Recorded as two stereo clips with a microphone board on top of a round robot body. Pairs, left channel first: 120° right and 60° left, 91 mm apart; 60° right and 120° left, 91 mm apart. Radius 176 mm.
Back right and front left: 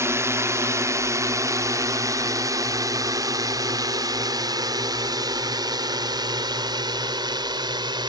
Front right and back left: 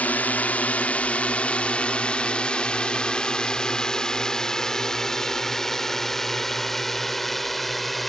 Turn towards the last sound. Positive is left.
turn(degrees=30)